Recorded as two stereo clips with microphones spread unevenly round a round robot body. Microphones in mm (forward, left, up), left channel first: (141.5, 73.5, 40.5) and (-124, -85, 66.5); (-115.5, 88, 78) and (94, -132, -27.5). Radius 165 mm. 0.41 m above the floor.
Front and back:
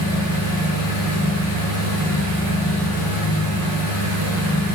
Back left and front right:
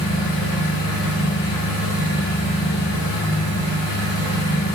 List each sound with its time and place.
0.0 s an engine running: 75° left, 1.7 m